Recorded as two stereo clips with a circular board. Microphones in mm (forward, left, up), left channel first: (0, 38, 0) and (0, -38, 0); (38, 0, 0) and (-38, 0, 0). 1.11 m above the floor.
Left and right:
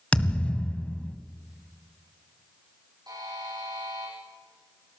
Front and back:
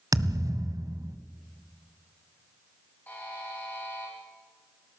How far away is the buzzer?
About 9 m.